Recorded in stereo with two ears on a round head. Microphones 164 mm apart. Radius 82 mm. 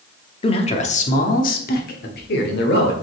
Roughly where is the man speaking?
Left.